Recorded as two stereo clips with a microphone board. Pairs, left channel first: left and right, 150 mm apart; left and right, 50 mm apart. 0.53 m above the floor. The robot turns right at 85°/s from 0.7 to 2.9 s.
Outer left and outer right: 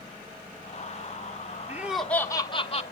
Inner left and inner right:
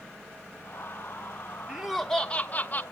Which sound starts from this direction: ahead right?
Laughter, at 1.7 s.